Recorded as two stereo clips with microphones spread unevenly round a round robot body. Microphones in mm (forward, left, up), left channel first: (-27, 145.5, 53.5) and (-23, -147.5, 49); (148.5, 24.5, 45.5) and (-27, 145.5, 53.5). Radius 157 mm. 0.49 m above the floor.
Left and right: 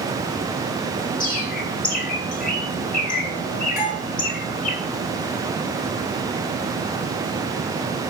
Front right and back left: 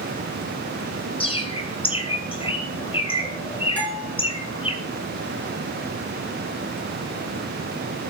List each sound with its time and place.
1.2 s a bird: 30° left, 3 m
3.8 s a bell: 50° left, 6.5 m